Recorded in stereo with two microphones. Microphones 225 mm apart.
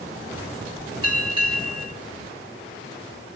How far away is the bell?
About 3.5 m.